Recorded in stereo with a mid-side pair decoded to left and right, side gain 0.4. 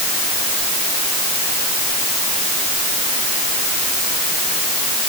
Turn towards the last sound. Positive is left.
No sound to turn to.